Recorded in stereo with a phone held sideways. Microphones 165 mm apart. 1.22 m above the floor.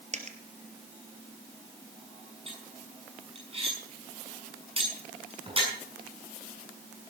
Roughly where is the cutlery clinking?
Right.